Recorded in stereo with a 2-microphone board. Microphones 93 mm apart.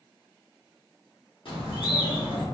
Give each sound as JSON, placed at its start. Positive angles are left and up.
{"t": 1.4, "sound": "a bird", "side_deg": 70, "distance_m": 1.4}